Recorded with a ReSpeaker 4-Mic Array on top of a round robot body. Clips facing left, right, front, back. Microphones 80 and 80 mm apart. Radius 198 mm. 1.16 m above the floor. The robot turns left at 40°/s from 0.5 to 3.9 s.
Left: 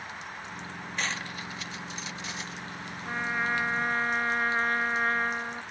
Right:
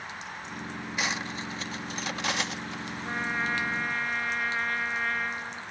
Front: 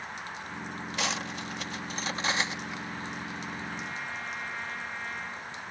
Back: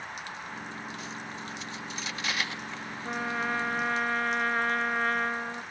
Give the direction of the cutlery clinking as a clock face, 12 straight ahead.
12 o'clock.